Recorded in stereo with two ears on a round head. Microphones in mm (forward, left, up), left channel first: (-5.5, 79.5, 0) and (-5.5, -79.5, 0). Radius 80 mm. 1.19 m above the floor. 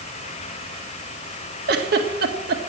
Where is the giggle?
60° right (ahead or behind), 1.7 m.